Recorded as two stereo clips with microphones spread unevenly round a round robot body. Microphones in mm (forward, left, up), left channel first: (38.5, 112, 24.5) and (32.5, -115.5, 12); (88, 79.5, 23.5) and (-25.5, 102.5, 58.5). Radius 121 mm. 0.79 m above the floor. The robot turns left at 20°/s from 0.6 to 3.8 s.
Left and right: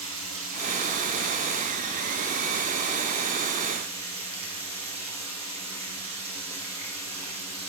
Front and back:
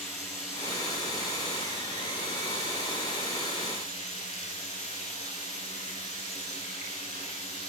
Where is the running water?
95° right, 10 m; by 7.7 s 160° right, 10 m.